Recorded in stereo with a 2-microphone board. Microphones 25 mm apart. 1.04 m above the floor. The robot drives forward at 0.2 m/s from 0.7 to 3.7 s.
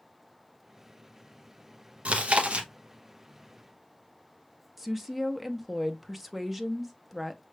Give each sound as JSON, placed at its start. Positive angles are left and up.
{"t": 2.0, "sound": "chewing", "side_deg": -60, "distance_m": 0.8}
{"t": 4.8, "sound": "a woman speaking", "side_deg": -5, "distance_m": 0.6}